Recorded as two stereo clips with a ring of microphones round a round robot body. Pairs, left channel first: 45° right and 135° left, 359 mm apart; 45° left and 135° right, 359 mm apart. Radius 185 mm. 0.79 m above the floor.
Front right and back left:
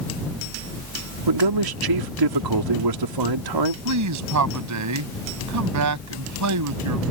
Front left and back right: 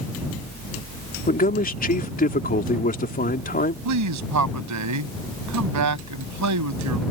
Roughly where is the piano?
No piano in this recording.